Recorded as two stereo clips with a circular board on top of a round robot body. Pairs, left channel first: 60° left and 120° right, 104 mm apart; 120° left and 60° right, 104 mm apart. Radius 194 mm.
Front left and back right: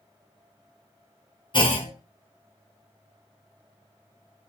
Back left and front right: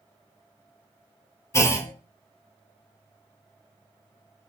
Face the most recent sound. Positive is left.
turn(degrees=65)